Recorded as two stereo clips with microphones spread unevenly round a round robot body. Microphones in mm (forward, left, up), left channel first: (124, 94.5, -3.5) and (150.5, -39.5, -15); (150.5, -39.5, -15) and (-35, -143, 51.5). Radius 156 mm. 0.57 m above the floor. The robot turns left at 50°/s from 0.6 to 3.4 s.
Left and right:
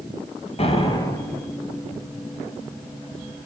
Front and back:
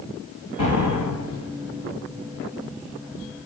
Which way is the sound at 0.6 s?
55° left.